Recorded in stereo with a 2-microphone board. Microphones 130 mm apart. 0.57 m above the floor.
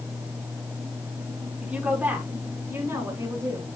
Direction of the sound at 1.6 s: 10° right (ahead or behind).